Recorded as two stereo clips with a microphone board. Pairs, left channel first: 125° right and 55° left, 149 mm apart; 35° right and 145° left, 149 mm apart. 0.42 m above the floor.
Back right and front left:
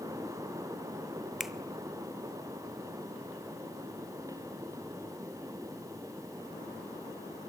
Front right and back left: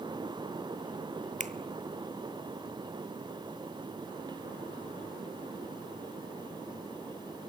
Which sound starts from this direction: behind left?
A finger snap, at 1.4 s.